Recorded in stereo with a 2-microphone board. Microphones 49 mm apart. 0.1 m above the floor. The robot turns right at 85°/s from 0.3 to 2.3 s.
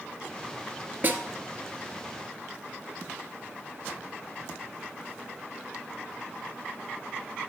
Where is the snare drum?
45° right (ahead or behind), 0.9 m.